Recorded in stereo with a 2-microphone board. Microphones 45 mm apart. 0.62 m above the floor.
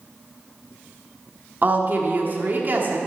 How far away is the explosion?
No explosion in this recording.